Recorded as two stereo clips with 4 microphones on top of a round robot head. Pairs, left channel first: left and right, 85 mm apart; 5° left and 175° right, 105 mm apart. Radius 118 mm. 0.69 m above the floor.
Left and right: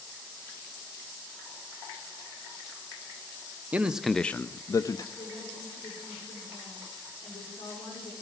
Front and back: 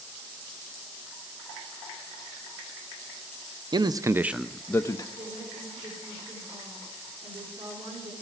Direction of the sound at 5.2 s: 150° left.